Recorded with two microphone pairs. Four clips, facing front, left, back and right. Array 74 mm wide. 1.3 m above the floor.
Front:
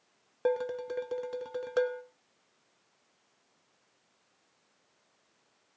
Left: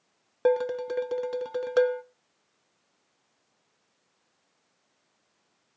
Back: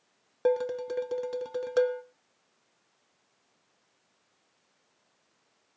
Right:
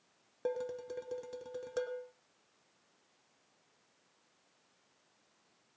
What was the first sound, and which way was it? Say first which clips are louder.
Dishes clattering: left 13 dB, back 3 dB; 80° left.